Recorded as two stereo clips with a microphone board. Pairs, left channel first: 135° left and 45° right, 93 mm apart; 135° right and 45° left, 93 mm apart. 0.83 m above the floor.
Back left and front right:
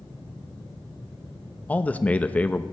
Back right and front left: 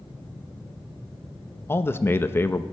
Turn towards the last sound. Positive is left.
turn(degrees=-165)